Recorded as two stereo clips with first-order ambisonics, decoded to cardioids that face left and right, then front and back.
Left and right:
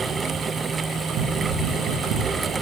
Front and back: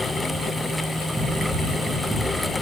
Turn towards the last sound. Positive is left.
turn(degrees=-105)